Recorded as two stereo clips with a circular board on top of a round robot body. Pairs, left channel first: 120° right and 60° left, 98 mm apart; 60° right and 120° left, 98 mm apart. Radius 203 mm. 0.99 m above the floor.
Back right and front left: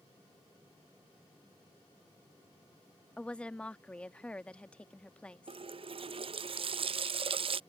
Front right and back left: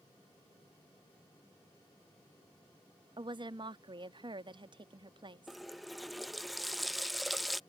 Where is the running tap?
30° left.